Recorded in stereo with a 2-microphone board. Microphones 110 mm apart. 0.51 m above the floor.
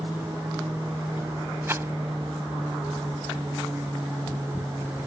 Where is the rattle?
25° right (ahead or behind).